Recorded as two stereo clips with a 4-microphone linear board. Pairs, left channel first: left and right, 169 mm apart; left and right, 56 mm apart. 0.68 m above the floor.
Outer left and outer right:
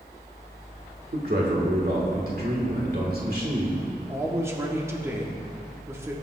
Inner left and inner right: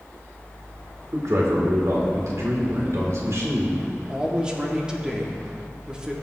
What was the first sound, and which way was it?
A man speaking, 65° right (ahead or behind).